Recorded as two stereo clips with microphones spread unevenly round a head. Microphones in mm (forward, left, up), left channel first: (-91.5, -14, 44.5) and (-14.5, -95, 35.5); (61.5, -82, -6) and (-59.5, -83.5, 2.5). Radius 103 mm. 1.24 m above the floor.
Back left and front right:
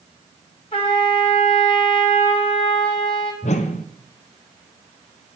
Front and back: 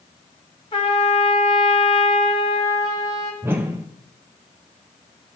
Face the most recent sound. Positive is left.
turn(degrees=105)